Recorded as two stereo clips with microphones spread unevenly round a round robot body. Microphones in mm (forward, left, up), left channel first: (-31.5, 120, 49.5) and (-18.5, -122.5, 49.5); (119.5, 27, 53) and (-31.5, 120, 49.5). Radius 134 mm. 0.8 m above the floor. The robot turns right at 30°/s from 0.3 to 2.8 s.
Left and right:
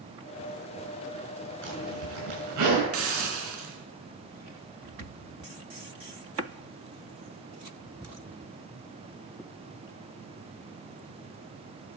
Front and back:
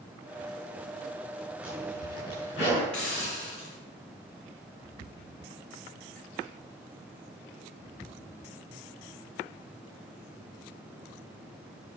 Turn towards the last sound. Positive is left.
turn(degrees=-120)